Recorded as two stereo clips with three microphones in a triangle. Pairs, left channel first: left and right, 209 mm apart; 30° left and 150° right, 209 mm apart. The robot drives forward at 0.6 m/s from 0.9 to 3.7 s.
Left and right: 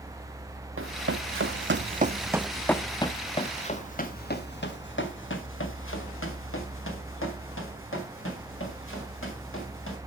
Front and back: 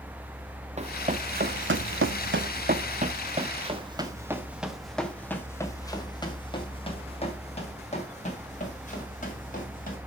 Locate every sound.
0.8 s running footsteps: 90° right, 0.9 m; by 10.0 s 80° left, 4 m